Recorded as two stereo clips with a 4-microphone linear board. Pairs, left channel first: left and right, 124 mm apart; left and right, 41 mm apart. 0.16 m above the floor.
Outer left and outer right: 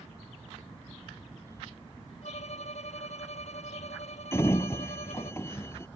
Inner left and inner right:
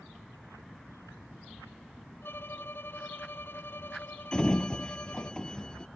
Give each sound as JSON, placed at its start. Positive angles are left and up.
{"t": 2.2, "sound": "a violin", "side_deg": 65}
{"t": 4.3, "sound": "a sliding door", "side_deg": 20}